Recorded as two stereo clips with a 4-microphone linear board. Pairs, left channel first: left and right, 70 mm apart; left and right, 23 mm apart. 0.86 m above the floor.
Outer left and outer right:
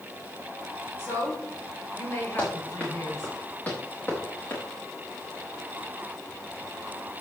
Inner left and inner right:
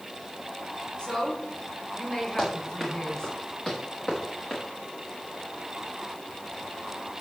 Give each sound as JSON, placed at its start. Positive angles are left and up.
{"t": 1.0, "sound": "a woman speaking", "side_deg": 35, "distance_m": 3.5}
{"t": 2.4, "sound": "running footsteps", "side_deg": 20, "distance_m": 5.5}